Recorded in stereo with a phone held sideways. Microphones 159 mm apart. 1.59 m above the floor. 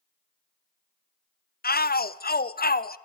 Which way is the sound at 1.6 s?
75° left (ahead or behind).